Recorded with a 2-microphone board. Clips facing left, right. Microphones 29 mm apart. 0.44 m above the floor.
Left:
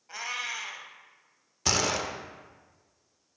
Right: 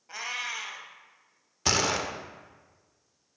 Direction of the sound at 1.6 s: 10° right (ahead or behind).